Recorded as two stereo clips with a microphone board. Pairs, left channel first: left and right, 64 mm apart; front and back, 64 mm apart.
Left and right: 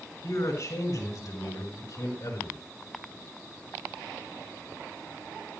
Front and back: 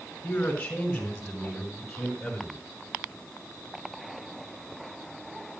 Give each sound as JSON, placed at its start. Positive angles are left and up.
{"t": 0.2, "sound": "a man speaking", "azimuth_deg": 70, "distance_m": 4.0}